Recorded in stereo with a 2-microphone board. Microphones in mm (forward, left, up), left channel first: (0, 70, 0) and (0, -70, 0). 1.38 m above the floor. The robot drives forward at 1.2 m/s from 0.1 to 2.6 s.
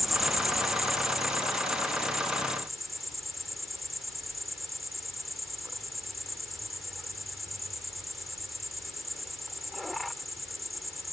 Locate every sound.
0.0 s an insect: centre (ahead or behind)